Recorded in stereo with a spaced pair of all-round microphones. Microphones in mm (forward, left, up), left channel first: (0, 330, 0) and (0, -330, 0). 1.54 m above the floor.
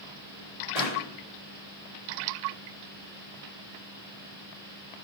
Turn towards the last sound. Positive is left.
turn(degrees=70)  # may be behind; listen again after turning